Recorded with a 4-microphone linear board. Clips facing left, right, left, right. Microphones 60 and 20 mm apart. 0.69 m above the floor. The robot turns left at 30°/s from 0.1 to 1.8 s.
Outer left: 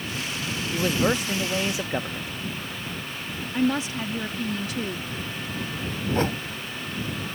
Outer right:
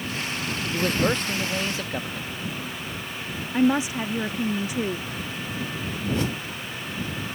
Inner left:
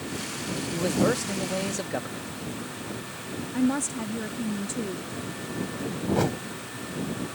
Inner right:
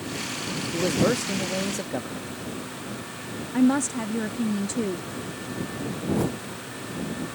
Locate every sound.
0.7 s a man speaking: 175° right; by 2.3 s 150° left
3.5 s a woman speaking: 20° right (ahead or behind)
6.1 s a whoosh: 40° left (ahead or behind)